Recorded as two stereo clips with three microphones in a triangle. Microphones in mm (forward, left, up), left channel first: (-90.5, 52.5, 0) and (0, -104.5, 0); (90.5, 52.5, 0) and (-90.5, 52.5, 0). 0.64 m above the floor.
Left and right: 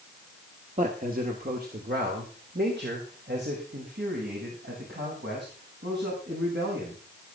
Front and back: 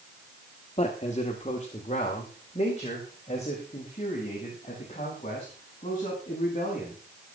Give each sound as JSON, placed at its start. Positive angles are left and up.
{"t": 0.8, "sound": "a man speaking", "azimuth_deg": -35, "distance_m": 1.6}